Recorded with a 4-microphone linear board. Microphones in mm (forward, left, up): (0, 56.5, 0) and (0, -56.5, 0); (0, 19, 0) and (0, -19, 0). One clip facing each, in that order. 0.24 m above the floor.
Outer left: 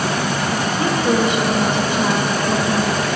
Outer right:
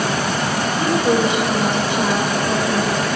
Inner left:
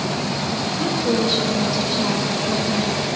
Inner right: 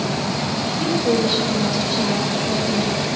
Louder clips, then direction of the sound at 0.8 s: Outer right 1 dB, inner right 2 dB; 20° right (ahead or behind).